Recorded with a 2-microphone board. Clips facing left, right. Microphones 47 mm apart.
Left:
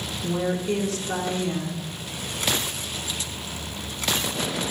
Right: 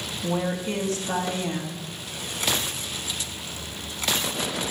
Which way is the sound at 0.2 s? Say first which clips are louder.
Left 2 dB; 60° right (ahead or behind).